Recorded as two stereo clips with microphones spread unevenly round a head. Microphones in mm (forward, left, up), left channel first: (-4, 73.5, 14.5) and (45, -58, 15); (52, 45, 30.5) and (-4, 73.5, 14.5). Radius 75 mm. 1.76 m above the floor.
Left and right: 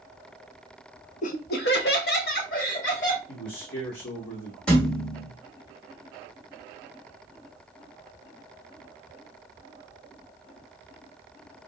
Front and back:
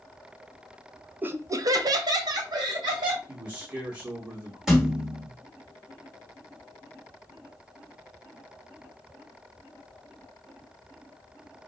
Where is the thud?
40° left, 1.1 m.